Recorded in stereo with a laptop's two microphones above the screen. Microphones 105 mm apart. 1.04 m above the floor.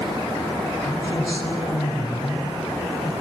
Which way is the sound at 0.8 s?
30° left (ahead or behind).